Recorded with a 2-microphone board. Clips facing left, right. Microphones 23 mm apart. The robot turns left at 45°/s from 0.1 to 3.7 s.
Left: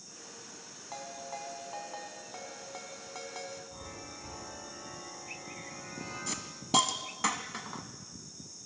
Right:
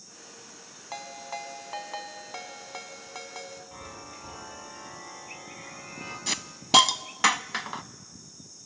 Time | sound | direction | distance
0.9 | a ringtone | 45° right | 1.6 m
3.7 | a chime | 50° right (ahead or behind) | 7 m
6.3 | a hiss | 70° right (ahead or behind) | 0.6 m